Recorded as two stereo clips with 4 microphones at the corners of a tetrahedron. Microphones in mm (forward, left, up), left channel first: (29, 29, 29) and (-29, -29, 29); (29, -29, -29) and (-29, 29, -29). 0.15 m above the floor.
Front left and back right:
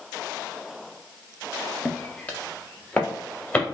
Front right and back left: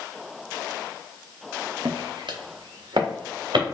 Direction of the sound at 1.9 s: 120° left.